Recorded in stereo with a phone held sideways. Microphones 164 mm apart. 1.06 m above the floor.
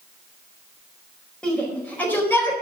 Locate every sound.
1.4 s a shout: 5° left (ahead or behind), 5 m; by 2.5 s 15° left (ahead or behind), 4 m